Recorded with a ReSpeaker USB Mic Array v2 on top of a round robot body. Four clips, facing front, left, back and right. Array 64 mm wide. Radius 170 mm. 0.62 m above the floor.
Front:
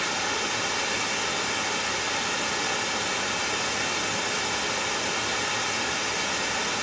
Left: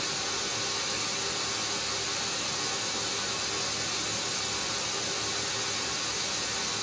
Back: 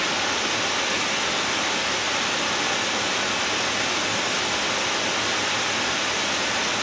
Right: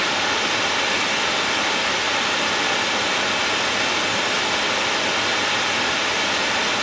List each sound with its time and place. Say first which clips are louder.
0.0 s running water: right 13 dB, back 3 dB; 105° right, 1.3 m